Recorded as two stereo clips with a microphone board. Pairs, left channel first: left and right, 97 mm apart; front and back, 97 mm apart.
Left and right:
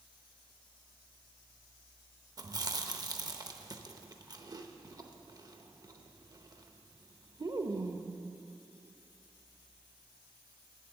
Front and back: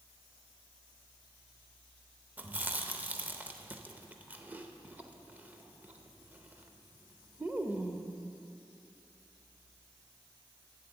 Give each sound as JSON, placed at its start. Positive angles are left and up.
{"t": 2.4, "sound": "chewing", "azimuth_deg": -115, "distance_m": 0.7}